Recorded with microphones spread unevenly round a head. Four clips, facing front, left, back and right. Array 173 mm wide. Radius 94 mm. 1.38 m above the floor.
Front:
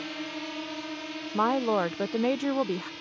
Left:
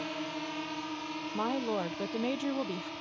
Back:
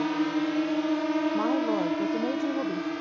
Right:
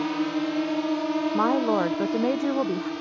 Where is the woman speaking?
45° right.